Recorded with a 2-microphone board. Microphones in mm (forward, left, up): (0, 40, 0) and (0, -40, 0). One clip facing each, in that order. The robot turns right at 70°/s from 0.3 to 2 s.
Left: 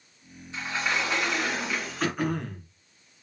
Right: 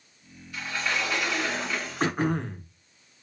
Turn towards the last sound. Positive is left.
turn(degrees=-30)  # may be behind; listen again after turning